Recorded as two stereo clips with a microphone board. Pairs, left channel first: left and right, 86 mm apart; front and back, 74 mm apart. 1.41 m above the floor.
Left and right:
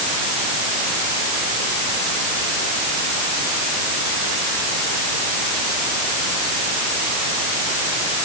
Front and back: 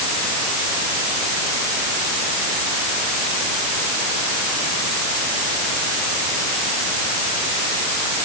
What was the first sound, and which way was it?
Only background noise.